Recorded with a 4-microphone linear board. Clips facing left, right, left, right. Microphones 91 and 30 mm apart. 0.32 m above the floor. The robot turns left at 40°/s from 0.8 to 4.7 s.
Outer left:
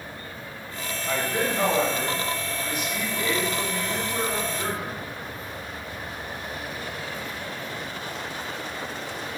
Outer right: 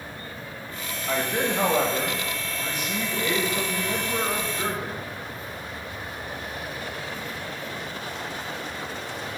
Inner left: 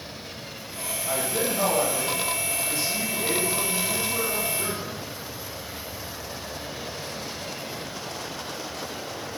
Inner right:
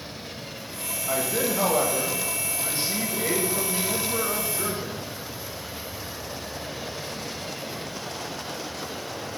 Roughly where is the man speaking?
Ahead.